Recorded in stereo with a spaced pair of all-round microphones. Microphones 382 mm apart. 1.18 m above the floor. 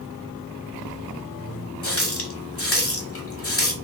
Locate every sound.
1.8 s a running tap: 35° left (ahead or behind), 0.7 m